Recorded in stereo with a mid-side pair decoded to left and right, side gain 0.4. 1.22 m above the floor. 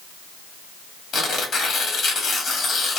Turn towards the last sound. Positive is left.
turn(degrees=70)